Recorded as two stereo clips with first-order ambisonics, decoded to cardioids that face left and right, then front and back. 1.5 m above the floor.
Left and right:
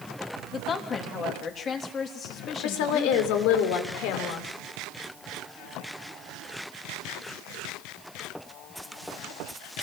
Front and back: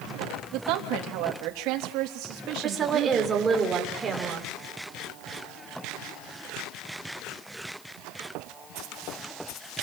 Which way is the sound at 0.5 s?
150° left.